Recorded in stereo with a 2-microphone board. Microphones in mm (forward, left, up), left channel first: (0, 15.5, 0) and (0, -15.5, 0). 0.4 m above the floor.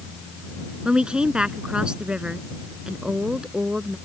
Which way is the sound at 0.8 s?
30° right (ahead or behind).